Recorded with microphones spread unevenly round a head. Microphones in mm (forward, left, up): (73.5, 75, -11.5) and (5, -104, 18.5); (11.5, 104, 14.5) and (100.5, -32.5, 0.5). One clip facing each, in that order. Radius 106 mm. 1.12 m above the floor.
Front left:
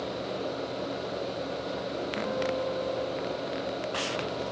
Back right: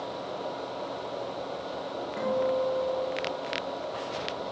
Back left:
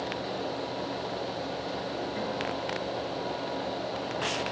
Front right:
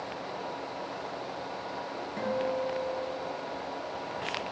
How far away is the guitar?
About 3.5 m.